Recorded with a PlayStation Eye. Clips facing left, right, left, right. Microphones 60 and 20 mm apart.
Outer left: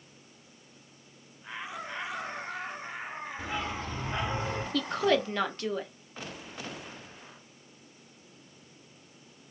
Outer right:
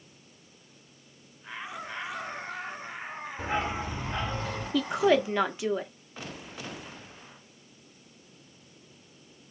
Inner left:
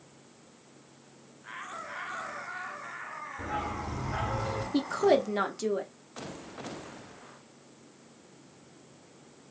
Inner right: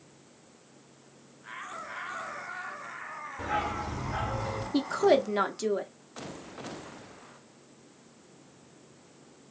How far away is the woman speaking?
About 0.7 m.